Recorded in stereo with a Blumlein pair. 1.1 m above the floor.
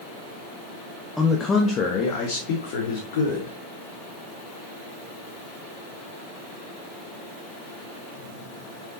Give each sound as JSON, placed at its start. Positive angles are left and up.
{"t": 1.2, "sound": "a man speaking", "azimuth_deg": 0, "distance_m": 1.3}